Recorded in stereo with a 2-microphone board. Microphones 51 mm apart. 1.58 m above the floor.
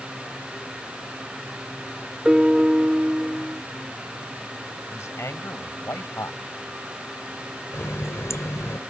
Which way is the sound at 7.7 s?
75° left (ahead or behind).